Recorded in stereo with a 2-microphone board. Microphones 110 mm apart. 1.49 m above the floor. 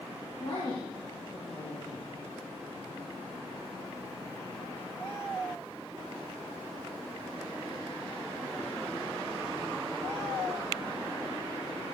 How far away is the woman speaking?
About 2.5 m.